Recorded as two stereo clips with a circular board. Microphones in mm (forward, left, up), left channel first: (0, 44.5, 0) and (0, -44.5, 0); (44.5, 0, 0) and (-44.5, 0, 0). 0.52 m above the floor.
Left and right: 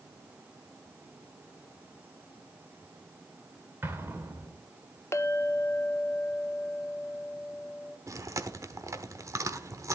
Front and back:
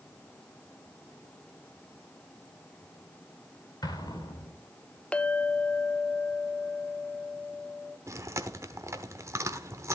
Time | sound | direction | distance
3.8 | an explosion | 30° right | 2.5 m
5.1 | a clink | 65° left | 0.7 m
8.1 | chewing | 135° right | 1.0 m